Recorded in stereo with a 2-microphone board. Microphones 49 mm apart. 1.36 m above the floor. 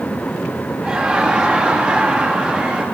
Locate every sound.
0.8 s laughter: 15° right (ahead or behind), 1.9 m